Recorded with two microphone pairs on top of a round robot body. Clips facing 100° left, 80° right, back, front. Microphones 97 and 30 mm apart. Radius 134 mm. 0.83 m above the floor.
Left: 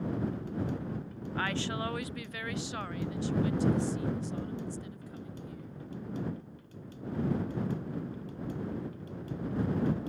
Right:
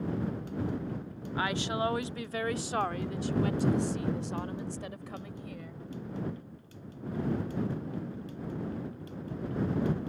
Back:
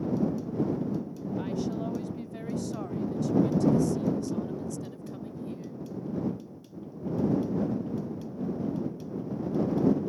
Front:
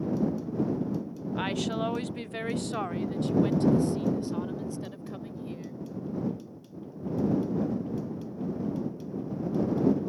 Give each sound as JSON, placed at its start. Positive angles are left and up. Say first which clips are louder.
{"t": 1.4, "sound": "a woman speaking", "louder": "right 3 dB, front 2 dB", "azimuth_deg": -5}